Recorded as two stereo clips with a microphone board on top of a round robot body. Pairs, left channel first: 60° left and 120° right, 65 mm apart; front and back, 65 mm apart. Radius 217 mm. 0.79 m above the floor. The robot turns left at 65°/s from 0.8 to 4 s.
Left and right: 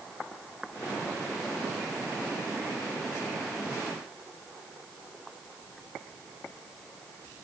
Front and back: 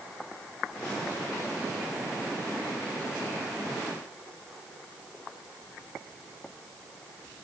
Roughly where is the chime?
I don't hear a chime.